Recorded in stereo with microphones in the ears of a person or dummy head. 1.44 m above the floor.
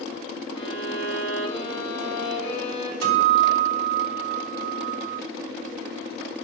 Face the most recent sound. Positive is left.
turn(degrees=-80)